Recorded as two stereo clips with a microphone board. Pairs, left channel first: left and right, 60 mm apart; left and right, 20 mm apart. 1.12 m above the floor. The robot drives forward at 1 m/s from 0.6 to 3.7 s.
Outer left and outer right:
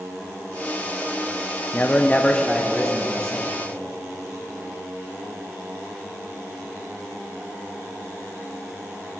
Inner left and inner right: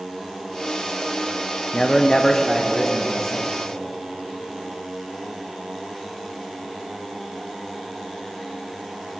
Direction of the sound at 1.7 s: 30° left (ahead or behind).